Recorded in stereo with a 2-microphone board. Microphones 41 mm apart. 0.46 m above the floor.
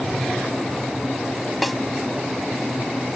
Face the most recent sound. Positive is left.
turn(degrees=0)  # may be behind; listen again after turning